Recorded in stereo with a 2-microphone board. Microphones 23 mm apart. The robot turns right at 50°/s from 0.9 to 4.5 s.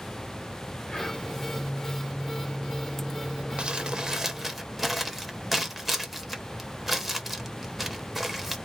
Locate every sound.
0.9 s whispering: 35° left (ahead or behind), 1.0 m; by 1.3 s 45° left (ahead or behind), 1.0 m
3.6 s crumpling: 55° right (ahead or behind), 0.5 m; by 8.6 s 10° right (ahead or behind), 0.5 m